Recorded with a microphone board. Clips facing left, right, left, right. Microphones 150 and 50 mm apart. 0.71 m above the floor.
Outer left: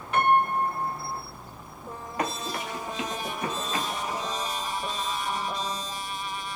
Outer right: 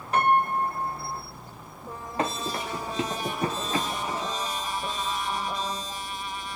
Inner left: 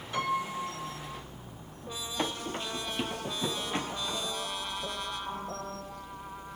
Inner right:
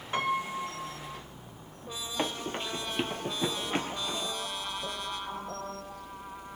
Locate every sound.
0.1 s a piano: 40° right (ahead or behind), 1.2 m
2.2 s running footsteps: 30° right (ahead or behind), 0.9 m; by 4.3 s 25° right (ahead or behind), 1.0 m